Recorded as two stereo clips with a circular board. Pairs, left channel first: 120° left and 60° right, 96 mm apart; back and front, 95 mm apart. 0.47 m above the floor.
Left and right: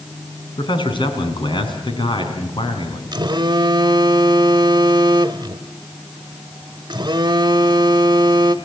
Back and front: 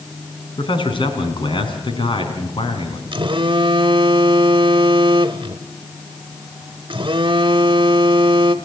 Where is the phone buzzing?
25° right, 1.0 m.